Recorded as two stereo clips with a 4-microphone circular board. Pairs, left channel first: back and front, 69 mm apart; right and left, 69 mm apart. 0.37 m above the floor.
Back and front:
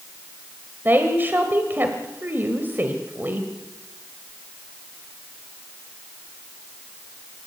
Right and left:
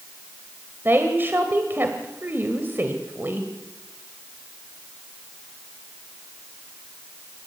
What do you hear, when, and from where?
0.8 s a woman speaking: 45° left, 1.7 m